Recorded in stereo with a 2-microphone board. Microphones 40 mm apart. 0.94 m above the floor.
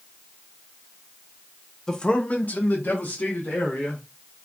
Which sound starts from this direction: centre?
A man speaking, at 1.9 s.